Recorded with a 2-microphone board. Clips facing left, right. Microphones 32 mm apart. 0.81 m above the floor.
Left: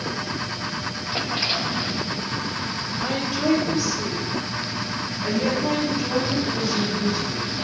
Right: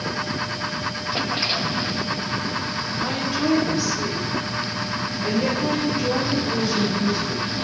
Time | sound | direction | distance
3.0 | a woman speaking | centre (ahead or behind) | 3 m